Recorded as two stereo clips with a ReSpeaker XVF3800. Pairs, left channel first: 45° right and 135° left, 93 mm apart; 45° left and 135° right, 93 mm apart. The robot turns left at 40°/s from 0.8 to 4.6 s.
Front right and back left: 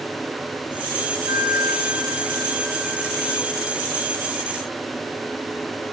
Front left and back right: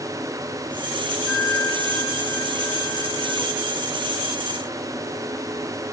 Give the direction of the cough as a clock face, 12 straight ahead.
No cough in this recording.